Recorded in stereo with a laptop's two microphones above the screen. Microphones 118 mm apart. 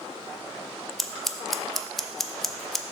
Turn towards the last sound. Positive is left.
turn(degrees=5)  # may be behind; listen again after turning